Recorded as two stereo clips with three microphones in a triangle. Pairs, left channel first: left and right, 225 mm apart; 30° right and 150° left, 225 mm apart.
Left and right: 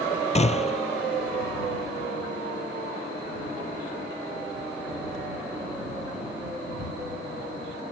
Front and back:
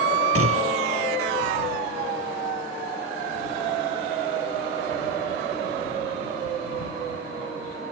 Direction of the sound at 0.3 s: 150° left.